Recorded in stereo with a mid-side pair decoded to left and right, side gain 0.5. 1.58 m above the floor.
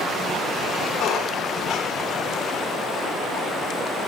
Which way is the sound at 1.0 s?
60° left.